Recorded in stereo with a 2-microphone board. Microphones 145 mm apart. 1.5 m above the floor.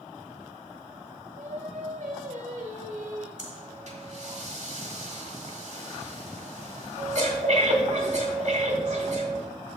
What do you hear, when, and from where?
1.4 s singing: 60° right (ahead or behind), 1.5 m
3.4 s breathing: 55° right (ahead or behind), 1.7 m